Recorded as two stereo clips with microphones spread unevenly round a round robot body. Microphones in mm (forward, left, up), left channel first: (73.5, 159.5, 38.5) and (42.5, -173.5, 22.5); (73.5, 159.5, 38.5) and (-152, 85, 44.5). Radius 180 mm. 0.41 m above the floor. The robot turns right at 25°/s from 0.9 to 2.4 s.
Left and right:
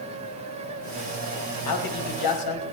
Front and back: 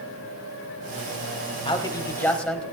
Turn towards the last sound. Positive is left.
turn(degrees=105)